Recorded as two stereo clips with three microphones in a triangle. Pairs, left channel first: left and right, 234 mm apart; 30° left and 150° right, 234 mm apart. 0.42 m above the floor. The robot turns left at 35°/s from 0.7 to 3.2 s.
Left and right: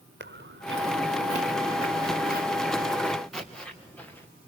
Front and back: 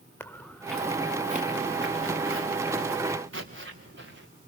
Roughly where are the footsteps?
Ahead right.